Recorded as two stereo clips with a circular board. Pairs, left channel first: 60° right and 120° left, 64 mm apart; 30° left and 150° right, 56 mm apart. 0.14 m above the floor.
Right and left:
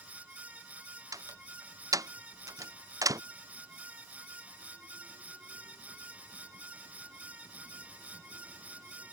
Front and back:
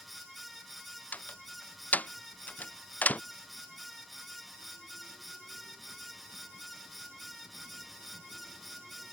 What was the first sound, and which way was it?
A door slam, 90° left.